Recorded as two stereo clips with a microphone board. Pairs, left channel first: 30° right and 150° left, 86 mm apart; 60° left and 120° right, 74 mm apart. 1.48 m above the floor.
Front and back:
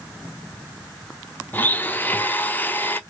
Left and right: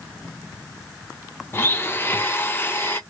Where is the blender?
25° left, 0.5 m.